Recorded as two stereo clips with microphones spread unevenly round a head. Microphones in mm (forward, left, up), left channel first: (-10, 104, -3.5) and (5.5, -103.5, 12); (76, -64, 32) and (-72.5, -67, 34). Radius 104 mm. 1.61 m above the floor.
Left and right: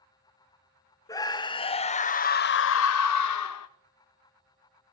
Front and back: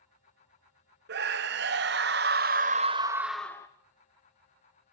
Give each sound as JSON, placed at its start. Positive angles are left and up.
{"t": 1.1, "sound": "a scream", "azimuth_deg": 170, "distance_m": 1.5}